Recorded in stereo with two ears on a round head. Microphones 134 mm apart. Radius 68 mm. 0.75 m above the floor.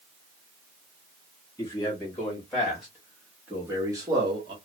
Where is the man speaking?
15° left (ahead or behind), 1.6 m; by 4.5 s 35° right (ahead or behind), 1.2 m.